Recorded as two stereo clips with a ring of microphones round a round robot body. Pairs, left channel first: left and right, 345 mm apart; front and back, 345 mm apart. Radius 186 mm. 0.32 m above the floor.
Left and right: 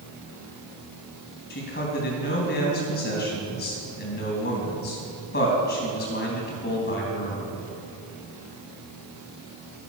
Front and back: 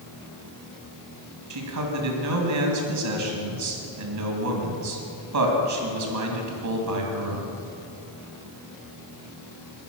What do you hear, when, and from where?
1.5 s a man speaking: 150° left, 3 m